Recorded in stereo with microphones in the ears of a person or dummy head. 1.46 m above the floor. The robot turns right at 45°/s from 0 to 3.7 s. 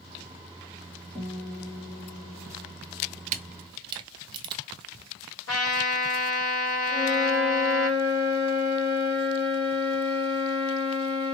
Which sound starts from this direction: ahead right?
A guitar, at 1.1 s.